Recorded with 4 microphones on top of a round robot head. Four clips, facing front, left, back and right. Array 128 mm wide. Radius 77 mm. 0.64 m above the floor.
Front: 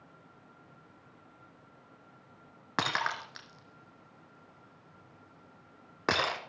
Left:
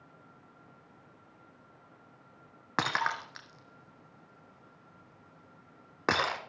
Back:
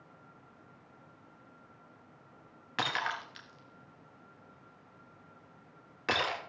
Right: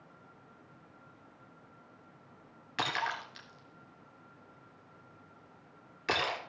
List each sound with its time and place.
2.8 s breaking glass: 55° left, 1.5 m